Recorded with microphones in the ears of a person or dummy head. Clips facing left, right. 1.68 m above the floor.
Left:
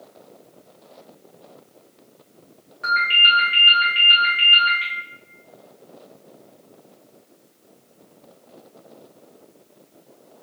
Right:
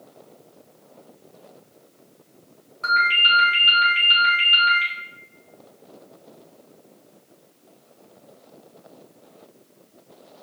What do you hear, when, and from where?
2.8 s a ringtone: 15° left (ahead or behind), 0.7 m